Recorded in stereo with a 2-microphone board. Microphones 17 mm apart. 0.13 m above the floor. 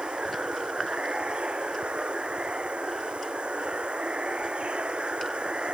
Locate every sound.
0.0 s running water: 80° right